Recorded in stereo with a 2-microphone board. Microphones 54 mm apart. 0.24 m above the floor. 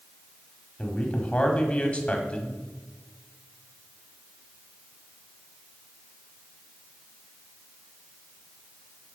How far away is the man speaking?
About 1.6 m.